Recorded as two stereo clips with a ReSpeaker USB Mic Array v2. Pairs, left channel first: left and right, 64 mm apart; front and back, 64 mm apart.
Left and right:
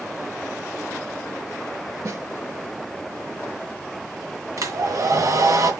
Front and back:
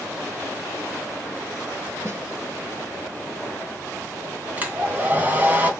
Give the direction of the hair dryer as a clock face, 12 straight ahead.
4 o'clock.